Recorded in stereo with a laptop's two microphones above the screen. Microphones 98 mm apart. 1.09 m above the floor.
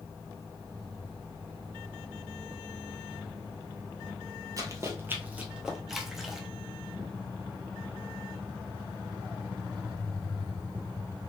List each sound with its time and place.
4.6 s running footsteps: 35° right (ahead or behind), 1.2 m; by 5.8 s 5° right (ahead or behind), 1.1 m
5.9 s a splash: 5° right (ahead or behind), 0.7 m